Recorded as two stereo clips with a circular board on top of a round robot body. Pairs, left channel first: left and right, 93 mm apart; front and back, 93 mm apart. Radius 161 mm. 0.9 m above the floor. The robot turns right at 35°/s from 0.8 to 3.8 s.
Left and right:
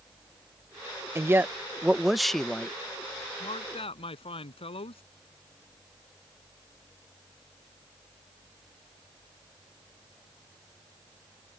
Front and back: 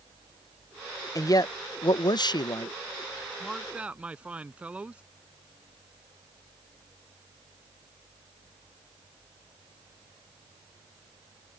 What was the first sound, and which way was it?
A man speaking, 40° right.